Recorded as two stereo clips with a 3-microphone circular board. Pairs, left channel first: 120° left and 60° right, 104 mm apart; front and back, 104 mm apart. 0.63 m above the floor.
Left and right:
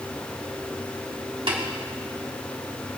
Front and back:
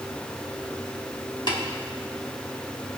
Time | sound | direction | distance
1.5 | tapping | 40° right | 3.5 m